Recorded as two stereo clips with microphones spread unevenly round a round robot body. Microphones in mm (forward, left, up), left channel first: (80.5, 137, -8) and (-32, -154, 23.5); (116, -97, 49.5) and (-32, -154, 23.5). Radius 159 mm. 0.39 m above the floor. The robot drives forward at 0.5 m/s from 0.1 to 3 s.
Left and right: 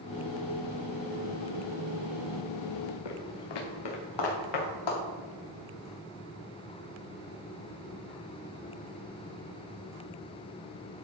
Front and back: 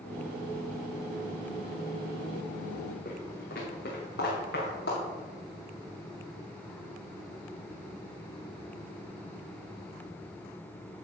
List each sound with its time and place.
3.0 s footsteps: 80° left, 2.5 m; by 5.0 s 70° left, 5 m